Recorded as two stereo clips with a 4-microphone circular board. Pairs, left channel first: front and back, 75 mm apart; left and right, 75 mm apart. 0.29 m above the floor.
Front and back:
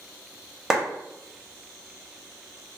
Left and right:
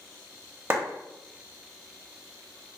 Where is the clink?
No clink in this recording.